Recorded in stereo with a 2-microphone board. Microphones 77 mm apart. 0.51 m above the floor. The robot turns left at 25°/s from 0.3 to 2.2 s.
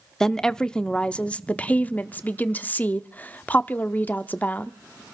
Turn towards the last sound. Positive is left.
turn(degrees=20)  # may be behind; listen again after turning